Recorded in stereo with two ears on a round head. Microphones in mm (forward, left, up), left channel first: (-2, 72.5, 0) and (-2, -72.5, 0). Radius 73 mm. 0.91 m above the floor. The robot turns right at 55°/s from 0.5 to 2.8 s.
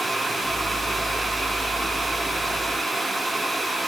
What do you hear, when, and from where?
Only background noise.